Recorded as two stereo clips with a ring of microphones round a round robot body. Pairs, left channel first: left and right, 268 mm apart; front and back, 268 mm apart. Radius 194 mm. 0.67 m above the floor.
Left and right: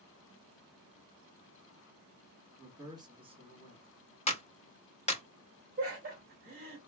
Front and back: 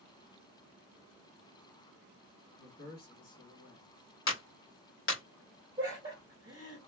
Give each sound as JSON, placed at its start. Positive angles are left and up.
{"t": 2.6, "sound": "a man speaking", "azimuth_deg": -15, "distance_m": 1.5}
{"t": 4.3, "sound": "a clap", "azimuth_deg": 25, "distance_m": 0.9}
{"t": 5.8, "sound": "laughter", "azimuth_deg": -115, "distance_m": 0.7}